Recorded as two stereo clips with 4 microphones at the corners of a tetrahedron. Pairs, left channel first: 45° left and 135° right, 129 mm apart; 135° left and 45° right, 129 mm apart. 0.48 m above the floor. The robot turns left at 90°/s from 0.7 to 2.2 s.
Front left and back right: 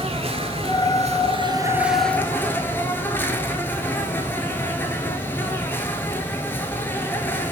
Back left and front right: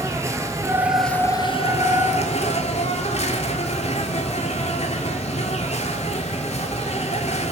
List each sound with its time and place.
0.0 s an insect: 110° right, 0.7 m; by 7.5 s 115° left, 0.7 m